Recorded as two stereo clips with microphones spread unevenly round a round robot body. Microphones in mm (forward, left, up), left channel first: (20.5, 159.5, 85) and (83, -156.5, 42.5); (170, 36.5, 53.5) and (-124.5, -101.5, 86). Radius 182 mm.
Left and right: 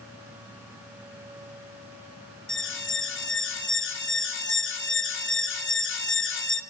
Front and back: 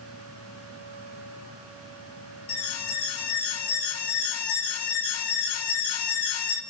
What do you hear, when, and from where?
2.5 s an alarm: 45° left, 3 m